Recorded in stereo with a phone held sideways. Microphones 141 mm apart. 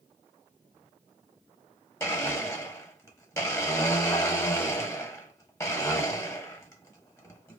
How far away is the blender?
About 1.3 m.